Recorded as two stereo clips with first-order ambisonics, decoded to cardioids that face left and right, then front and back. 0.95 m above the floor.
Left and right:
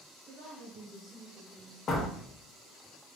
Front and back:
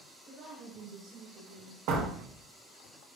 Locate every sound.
0.3 s a woman speaking: 125° right, 1.4 m; by 1.8 s 150° left, 1.1 m
1.9 s a door slam: 155° left, 0.8 m